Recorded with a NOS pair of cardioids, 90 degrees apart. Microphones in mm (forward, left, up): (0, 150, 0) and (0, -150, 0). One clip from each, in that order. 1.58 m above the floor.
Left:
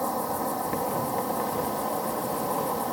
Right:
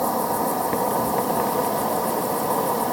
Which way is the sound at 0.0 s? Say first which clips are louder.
Right 6 dB; 35° right.